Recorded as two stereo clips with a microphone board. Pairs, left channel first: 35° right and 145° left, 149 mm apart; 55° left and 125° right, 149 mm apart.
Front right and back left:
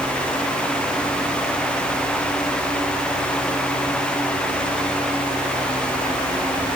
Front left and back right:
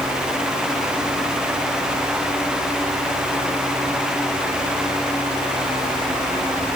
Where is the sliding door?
No sliding door in this recording.